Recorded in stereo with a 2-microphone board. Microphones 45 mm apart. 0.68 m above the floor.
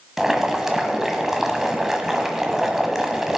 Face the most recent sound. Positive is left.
turn(degrees=-10)  # may be behind; listen again after turning